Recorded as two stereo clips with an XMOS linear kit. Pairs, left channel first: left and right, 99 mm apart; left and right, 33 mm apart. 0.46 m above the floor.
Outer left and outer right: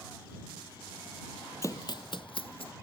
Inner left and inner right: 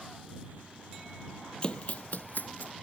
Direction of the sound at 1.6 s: 30° left (ahead or behind).